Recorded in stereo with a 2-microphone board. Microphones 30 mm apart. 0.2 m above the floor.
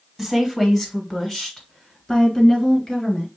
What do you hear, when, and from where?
0.2 s a woman speaking: 10° left (ahead or behind), 1.5 m; by 3.3 s 35° left (ahead or behind), 3 m